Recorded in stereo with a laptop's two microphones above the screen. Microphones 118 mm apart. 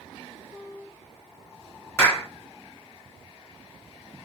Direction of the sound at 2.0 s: 20° left (ahead or behind).